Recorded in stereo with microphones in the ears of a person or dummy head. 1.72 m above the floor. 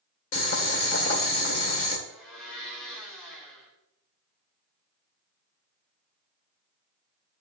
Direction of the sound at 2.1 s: 5° right (ahead or behind).